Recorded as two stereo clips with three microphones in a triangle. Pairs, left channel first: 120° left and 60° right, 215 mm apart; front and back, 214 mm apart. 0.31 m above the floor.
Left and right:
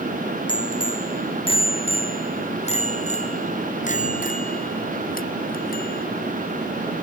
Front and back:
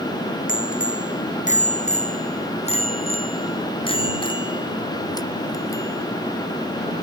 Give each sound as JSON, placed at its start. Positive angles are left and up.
{"t": 0.5, "sound": "a bicycle bell", "azimuth_deg": 50}